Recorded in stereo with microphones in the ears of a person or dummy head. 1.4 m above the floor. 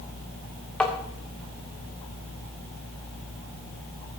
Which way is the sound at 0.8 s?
5° left (ahead or behind).